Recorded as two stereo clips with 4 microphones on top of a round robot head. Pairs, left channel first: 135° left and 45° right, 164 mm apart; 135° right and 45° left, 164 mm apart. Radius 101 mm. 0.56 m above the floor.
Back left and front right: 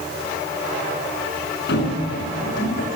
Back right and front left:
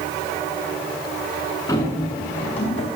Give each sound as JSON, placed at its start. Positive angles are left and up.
{"t": 1.7, "sound": "running footsteps", "azimuth_deg": 155, "distance_m": 5.0}